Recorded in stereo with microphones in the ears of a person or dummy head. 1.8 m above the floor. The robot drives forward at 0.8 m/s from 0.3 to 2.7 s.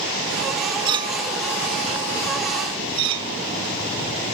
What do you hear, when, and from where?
0.8 s a clink: 25° right (ahead or behind); by 3.4 s 30° right (ahead or behind)